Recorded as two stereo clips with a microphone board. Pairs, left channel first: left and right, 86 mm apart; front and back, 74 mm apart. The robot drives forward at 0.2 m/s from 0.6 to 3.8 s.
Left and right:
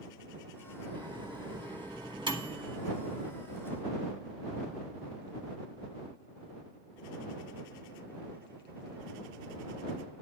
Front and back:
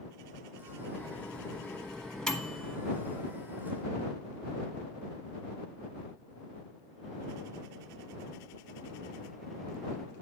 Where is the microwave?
70° right, 1.3 m; by 2.8 s 90° right, 1.2 m.